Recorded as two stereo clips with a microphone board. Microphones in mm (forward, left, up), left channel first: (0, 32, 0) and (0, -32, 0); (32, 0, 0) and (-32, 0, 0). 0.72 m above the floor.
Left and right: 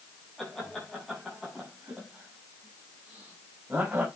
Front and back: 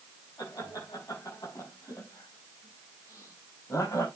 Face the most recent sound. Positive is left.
turn(degrees=-15)